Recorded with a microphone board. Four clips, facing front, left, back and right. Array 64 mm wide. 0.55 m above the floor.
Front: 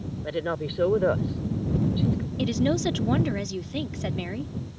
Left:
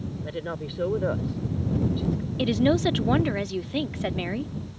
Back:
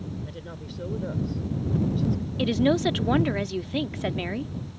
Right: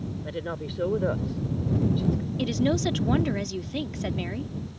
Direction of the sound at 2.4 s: 135° left.